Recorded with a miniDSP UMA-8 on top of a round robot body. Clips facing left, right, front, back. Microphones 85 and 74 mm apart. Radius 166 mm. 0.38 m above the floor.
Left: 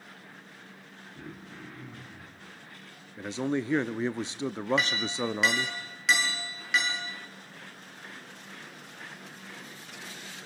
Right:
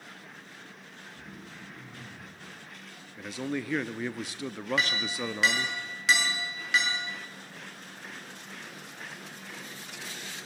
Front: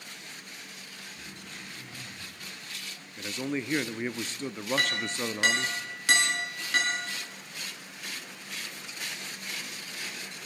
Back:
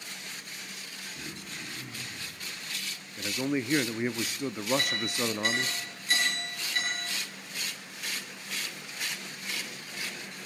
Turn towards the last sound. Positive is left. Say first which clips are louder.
# left 1 dB, front 1 dB
turn(degrees=0)